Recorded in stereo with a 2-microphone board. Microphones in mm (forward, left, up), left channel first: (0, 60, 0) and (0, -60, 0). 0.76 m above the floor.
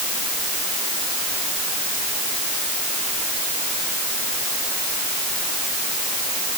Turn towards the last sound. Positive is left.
No sound to turn to.